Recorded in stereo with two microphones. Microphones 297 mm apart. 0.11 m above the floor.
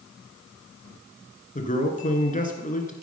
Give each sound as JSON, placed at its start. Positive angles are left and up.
{"t": 1.6, "sound": "a man speaking", "side_deg": 25, "distance_m": 1.4}